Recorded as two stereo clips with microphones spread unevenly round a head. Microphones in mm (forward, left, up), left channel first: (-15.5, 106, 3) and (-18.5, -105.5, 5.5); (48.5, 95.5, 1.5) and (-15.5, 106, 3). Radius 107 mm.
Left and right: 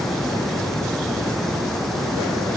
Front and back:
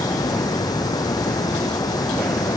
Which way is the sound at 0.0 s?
Straight ahead.